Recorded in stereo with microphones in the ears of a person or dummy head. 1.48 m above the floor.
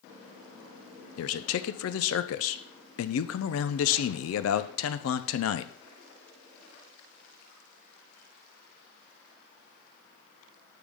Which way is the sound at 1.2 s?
85° left.